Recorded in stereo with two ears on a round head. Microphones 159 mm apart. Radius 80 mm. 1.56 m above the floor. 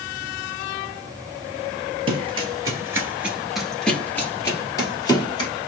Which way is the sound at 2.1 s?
30° right (ahead or behind).